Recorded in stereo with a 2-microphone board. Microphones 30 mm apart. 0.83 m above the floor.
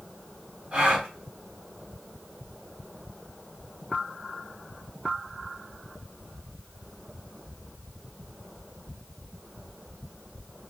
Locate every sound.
0.7 s a gasp: 40° right (ahead or behind), 1.7 m